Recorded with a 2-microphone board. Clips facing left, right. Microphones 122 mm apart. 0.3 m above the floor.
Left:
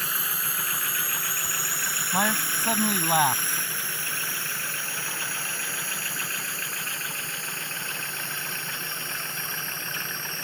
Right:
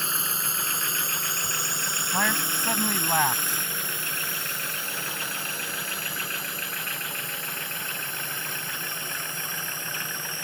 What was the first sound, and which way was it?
A drone, 25° right (ahead or behind).